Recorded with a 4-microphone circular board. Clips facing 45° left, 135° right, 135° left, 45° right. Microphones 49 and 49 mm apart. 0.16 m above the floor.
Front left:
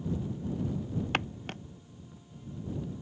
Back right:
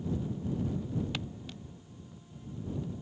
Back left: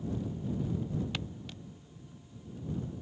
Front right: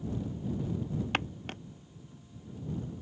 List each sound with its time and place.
1.1 s footsteps: straight ahead